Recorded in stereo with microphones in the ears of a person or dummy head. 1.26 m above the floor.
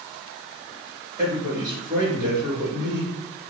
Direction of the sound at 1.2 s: 15° right (ahead or behind).